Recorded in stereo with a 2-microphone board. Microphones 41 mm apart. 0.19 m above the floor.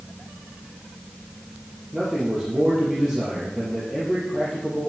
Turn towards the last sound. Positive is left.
turn(degrees=0)  # may be behind; listen again after turning